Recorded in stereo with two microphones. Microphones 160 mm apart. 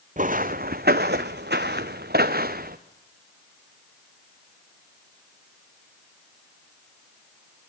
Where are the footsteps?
50° right (ahead or behind), 1.3 m; by 2.8 s 60° right (ahead or behind), 1.7 m.